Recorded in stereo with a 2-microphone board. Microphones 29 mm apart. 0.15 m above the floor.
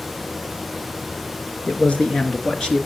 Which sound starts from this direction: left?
A man speaking, at 1.7 s.